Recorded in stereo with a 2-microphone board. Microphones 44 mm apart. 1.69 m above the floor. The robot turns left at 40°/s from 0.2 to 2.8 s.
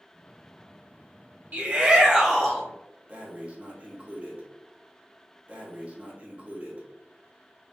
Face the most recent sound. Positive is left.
turn(degrees=-30)  # may be behind; listen again after turning